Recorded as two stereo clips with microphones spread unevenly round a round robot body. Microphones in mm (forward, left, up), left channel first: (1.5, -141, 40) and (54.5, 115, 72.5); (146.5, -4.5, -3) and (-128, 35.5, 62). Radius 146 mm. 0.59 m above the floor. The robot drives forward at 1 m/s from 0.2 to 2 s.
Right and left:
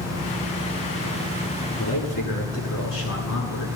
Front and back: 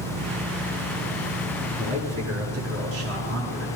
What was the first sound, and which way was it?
A man speaking, 140° right.